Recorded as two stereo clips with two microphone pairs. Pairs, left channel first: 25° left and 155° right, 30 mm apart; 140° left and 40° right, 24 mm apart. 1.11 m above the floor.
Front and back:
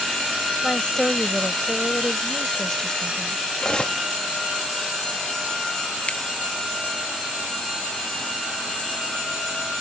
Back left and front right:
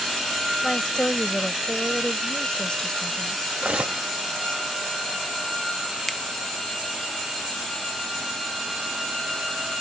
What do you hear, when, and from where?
0.6 s a woman speaking: 90° left
3.6 s cutlery clinking: 35° right
6.1 s a finger snap: 60° left